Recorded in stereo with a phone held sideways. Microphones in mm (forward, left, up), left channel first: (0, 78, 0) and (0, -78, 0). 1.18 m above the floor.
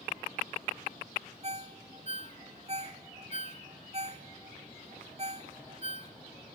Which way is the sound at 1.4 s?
45° right (ahead or behind).